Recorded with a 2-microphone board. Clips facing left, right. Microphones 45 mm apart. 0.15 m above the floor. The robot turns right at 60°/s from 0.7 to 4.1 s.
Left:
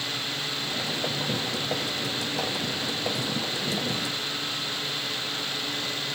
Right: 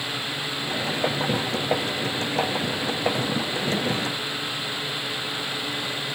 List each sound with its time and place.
Only background noise.